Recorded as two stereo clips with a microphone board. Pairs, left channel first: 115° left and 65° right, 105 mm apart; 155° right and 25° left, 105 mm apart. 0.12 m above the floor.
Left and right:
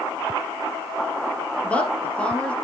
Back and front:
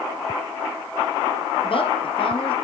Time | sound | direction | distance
1.6 | a woman speaking | 170° right | 3 m